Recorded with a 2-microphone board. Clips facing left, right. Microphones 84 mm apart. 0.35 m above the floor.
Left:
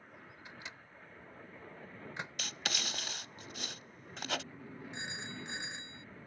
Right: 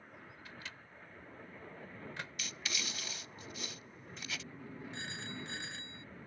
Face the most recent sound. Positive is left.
turn(degrees=20)  # may be behind; listen again after turning